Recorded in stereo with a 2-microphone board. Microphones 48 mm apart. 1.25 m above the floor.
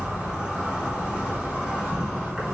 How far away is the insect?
About 1.2 m.